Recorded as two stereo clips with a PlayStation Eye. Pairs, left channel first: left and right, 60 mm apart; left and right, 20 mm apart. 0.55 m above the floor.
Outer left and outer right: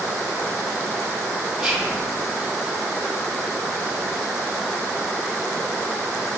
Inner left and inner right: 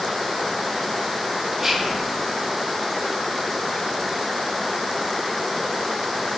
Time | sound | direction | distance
1.6 | whispering | 5° right (ahead or behind) | 1.7 m